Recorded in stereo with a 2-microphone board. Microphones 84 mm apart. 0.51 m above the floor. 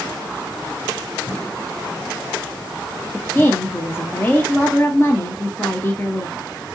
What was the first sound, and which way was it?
A woman speaking, 25° left (ahead or behind).